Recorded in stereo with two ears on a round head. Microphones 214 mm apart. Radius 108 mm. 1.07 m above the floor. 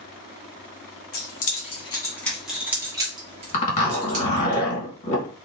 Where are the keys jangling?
40° left (ahead or behind), 1.1 m; by 4.5 s 40° right (ahead or behind), 1.9 m.